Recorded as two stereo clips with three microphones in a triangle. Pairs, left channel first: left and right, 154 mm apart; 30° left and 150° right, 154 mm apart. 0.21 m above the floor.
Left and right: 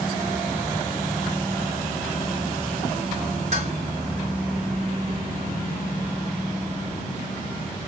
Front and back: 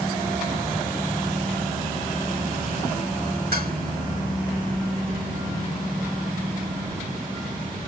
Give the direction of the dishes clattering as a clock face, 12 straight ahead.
4 o'clock.